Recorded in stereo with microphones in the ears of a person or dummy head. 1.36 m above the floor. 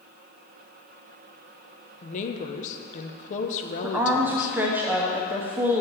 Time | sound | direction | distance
2.0 | a woman speaking | 35° left (ahead or behind) | 0.8 m
3.8 | a woman speaking | 5° right (ahead or behind) | 0.7 m